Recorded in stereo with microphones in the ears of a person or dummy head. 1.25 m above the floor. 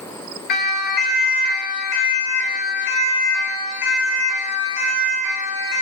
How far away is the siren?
About 5.5 m.